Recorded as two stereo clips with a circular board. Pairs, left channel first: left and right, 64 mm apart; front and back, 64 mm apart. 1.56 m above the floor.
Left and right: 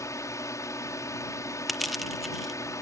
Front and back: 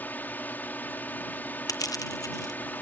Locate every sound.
0.0 s a drone: 60° left
1.7 s crushing: straight ahead